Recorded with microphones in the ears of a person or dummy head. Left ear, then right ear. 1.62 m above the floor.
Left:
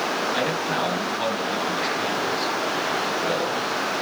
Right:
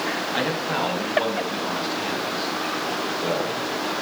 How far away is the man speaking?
About 6 m.